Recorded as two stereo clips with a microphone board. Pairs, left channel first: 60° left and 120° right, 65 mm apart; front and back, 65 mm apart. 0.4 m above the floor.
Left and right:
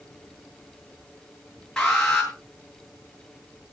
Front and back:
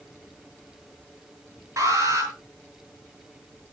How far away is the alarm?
About 7 m.